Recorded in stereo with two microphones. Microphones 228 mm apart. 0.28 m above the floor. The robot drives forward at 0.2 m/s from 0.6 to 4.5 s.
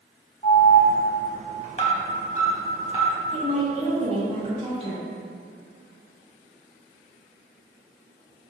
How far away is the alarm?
About 0.7 m.